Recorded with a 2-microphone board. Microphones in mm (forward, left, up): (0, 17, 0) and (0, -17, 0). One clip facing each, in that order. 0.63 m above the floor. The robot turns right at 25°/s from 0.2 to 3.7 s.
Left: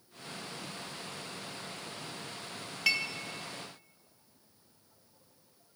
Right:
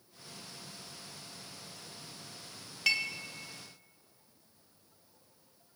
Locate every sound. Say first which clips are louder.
2.9 s dishes clattering: even; 5° left (ahead or behind), 0.9 m; by 3.1 s 10° left (ahead or behind), 0.9 m